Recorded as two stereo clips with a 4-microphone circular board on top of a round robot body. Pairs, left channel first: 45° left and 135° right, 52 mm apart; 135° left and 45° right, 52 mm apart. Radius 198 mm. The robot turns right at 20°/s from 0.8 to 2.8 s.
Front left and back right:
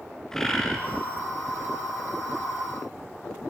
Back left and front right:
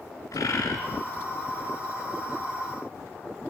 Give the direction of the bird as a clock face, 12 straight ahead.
8 o'clock.